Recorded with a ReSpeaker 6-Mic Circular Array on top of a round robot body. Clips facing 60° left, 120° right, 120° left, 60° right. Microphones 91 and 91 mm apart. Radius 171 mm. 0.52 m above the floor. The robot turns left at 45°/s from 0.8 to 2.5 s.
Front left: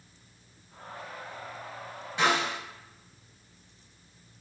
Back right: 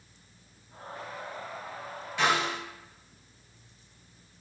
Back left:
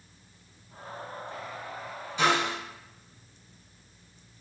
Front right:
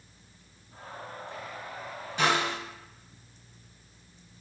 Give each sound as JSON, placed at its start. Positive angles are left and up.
{"t": 2.2, "sound": "a snare drum", "azimuth_deg": -15, "distance_m": 1.7}